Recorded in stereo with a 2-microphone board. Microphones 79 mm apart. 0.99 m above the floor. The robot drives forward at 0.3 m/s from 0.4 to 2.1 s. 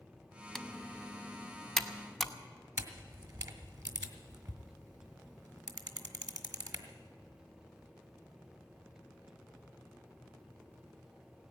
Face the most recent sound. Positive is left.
turn(degrees=-50)  # may be behind; listen again after turning